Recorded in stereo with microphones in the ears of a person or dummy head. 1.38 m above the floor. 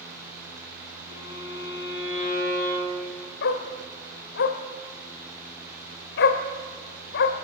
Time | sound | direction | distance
1.1 | a violin | 35° left (ahead or behind) | 9 m
3.4 | a dog barking | 55° left (ahead or behind) | 2.0 m